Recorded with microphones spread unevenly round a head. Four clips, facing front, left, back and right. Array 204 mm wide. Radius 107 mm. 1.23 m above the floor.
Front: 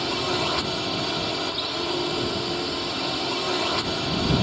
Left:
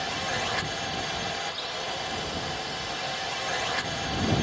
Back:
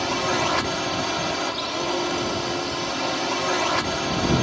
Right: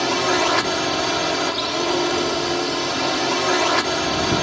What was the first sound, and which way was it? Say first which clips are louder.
A drone: right 12 dB, back 3 dB; 100° right.